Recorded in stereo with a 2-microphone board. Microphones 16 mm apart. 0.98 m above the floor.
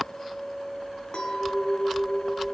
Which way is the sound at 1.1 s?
80° left.